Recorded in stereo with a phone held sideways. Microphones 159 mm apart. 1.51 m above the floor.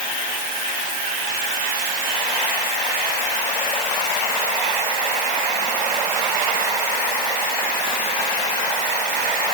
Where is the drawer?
I don't hear a drawer.